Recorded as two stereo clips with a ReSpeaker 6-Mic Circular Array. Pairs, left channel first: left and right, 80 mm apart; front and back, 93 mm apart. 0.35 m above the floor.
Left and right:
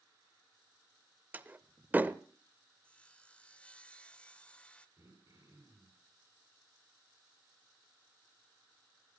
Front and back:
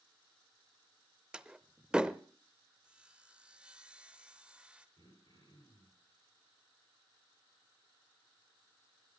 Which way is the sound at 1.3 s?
115° right.